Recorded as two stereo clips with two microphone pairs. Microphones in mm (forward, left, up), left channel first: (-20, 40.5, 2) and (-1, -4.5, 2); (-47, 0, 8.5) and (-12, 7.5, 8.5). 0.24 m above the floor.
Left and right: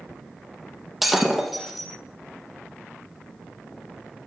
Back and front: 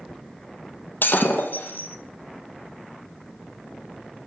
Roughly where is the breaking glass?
Behind right.